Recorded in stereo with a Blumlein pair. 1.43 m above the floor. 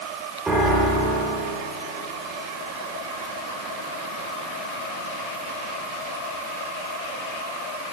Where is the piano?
10° right, 3 m.